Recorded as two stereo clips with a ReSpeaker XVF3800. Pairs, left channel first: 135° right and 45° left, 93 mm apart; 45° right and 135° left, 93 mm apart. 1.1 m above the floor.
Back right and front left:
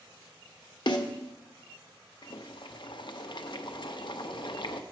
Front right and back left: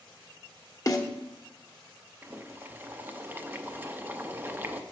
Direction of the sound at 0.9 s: 100° right.